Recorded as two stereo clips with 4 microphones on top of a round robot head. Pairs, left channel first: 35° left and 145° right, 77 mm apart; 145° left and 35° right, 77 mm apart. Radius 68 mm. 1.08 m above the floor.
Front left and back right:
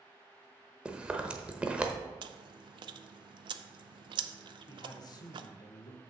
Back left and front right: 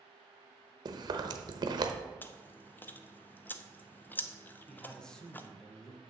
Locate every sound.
0.8 s chewing: 65° right, 0.8 m
2.2 s chewing: 150° right, 0.5 m
4.7 s a man speaking: 65° left, 1.2 m